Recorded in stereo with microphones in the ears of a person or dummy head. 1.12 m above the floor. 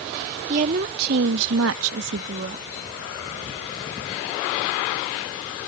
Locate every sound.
0.5 s a woman speaking: 45° right (ahead or behind); by 2.7 s 40° right (ahead or behind)